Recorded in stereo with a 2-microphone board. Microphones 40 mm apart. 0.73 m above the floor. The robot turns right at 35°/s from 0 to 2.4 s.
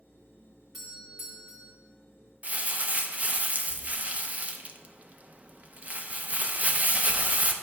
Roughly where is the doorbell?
Behind.